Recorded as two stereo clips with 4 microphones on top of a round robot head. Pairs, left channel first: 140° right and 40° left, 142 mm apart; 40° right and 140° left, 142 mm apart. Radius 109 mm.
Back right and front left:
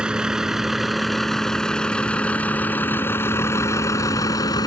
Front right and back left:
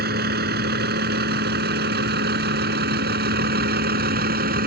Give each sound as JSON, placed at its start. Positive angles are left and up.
{"t": 0.0, "sound": "a vehicle", "azimuth_deg": 125}